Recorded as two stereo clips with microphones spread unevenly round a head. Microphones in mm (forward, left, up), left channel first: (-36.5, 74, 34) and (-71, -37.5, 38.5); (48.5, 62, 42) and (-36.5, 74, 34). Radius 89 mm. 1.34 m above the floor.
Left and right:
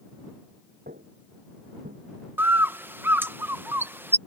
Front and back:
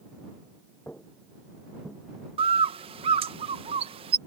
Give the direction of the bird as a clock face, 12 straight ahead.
6 o'clock.